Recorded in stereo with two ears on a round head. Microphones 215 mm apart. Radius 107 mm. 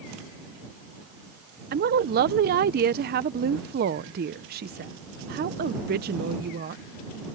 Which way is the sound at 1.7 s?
40° right (ahead or behind).